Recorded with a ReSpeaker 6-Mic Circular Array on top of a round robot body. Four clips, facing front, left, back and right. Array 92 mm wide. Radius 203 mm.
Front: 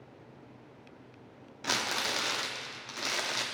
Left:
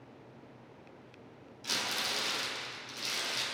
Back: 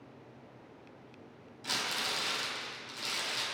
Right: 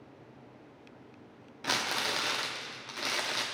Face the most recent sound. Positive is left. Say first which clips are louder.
# right 5 dB, front 4 dB
turn(degrees=-50)